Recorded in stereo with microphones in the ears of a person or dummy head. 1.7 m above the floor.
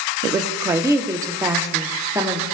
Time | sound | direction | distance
0.2 | a woman speaking | 15° right (ahead or behind) | 1.0 m